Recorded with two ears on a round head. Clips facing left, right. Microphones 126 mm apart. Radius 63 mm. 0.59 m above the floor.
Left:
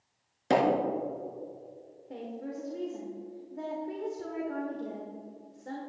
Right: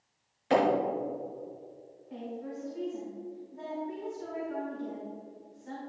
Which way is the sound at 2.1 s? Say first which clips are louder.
Left 1 dB; 60° left (ahead or behind).